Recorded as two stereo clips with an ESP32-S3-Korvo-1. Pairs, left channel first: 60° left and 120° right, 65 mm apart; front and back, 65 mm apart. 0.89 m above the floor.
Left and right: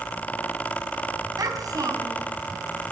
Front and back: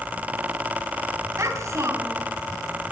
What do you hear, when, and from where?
1.4 s a child speaking: 140° right, 3.5 m